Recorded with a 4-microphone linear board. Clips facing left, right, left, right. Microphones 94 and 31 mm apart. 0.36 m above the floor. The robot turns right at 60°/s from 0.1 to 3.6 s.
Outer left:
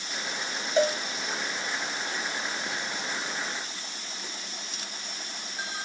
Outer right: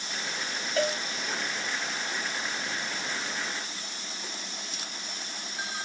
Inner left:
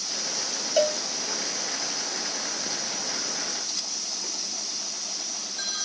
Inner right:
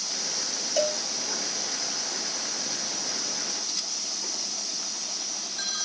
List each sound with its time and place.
0.8 s a cowbell: 25° left (ahead or behind), 0.7 m; by 1.0 s 10° left (ahead or behind), 0.7 m